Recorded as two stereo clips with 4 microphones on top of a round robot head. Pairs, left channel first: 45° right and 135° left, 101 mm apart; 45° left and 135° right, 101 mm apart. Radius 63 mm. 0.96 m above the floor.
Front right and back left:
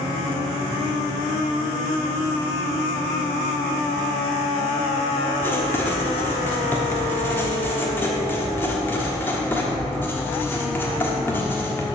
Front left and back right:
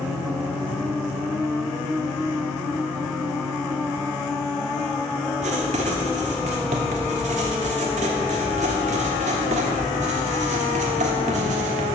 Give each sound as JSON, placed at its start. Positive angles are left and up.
{"t": 5.4, "sound": "writing", "azimuth_deg": -115, "distance_m": 1.2}